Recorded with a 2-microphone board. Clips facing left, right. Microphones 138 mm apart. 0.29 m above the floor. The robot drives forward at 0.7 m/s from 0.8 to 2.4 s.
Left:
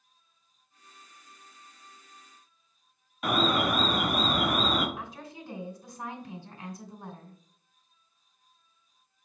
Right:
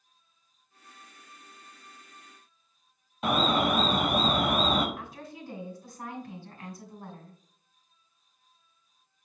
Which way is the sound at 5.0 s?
15° left (ahead or behind).